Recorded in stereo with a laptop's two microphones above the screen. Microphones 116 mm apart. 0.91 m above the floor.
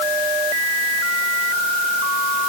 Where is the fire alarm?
No fire alarm in this recording.